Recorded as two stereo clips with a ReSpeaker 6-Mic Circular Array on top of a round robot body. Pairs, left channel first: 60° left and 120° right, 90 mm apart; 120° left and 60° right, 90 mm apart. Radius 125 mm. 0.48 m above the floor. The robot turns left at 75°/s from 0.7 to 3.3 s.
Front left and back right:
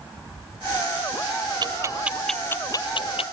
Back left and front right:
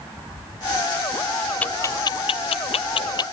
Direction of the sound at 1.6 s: 165° right.